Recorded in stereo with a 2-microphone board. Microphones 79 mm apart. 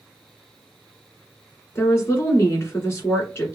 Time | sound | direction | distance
1.8 | a woman speaking | 35° left (ahead or behind) | 1.6 m